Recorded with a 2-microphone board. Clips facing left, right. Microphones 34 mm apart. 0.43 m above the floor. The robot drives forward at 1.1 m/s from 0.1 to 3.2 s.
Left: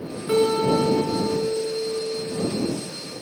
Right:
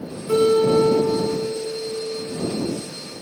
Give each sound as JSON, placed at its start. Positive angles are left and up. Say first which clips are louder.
{"t": 0.3, "sound": "a guitar", "louder": "right 3 dB", "side_deg": 40, "distance_m": 3.5}